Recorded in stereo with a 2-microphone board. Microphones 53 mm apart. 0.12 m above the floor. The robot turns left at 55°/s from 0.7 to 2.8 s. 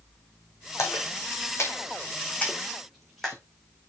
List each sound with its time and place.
0.8 s a splash: 65° left (ahead or behind), 2.5 m; by 3.4 s 5° left (ahead or behind), 2.5 m